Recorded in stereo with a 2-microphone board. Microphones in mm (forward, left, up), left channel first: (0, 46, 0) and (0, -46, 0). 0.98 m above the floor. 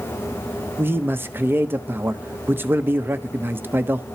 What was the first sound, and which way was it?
A man speaking, 25° right (ahead or behind).